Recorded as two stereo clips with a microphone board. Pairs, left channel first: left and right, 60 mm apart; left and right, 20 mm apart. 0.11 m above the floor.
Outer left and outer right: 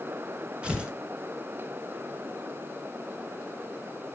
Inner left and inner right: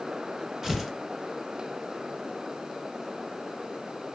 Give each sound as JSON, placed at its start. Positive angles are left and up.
{"t": 0.6, "sound": "tearing paper", "side_deg": -20, "distance_m": 1.7}